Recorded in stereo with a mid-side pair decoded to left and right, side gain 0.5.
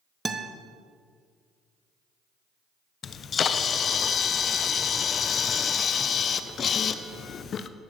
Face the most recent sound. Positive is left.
turn(degrees=45)